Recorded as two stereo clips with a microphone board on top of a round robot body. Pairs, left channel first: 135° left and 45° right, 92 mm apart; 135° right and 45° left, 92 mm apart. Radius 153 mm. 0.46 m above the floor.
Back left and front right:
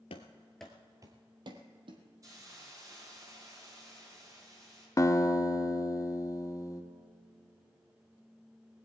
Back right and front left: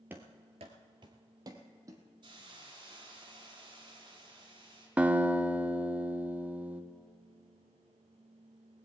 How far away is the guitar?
About 1.2 m.